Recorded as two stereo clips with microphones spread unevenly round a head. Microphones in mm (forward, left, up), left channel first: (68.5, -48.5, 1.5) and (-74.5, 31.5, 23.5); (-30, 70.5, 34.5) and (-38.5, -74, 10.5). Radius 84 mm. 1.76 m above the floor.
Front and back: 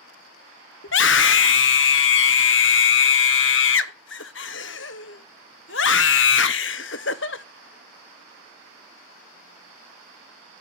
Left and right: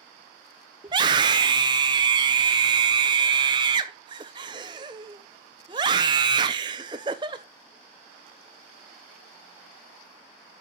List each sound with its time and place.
0.8 s a scream: 25° right, 0.9 m